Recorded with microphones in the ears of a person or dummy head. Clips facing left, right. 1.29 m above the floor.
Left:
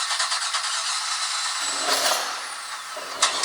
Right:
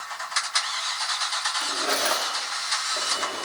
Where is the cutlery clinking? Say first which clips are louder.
Left 1 dB; 35° right (ahead or behind), 1.2 m.